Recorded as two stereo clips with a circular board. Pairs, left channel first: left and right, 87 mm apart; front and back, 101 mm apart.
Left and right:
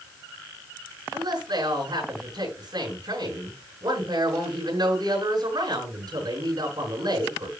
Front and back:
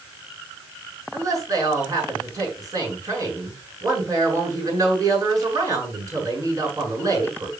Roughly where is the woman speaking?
Behind right.